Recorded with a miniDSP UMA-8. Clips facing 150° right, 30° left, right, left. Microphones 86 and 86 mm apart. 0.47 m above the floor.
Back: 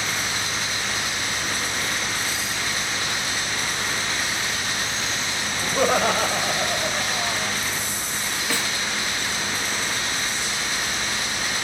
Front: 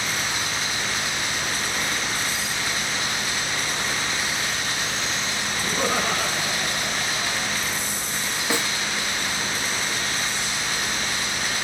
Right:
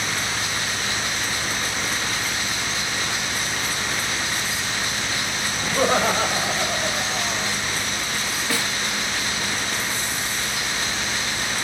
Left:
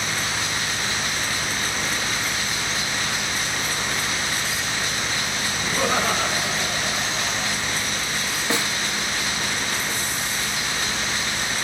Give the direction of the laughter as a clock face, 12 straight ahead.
5 o'clock.